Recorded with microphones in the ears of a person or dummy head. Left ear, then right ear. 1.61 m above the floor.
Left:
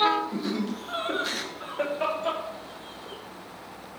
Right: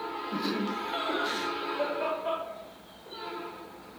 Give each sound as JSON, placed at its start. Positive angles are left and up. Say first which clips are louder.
{"t": 0.3, "sound": "laughter", "louder": "even", "side_deg": -20, "distance_m": 1.0}